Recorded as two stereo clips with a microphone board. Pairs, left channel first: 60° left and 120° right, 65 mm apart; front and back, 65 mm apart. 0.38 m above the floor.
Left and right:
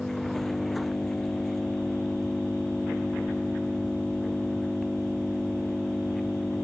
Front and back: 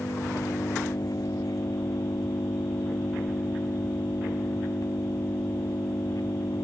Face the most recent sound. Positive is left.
turn(degrees=-25)